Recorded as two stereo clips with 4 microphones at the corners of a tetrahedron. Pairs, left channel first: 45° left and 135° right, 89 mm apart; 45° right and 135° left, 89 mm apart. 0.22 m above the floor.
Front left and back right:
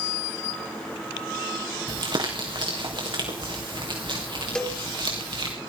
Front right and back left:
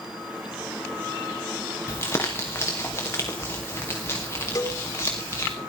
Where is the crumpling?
105° right, 4 m.